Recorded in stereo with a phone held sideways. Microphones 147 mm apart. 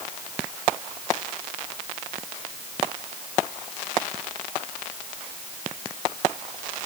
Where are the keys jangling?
No keys jangling in this recording.